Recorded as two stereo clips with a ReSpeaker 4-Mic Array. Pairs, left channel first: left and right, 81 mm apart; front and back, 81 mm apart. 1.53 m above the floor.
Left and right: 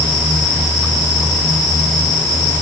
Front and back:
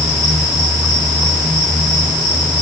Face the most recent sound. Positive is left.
No sound to turn to.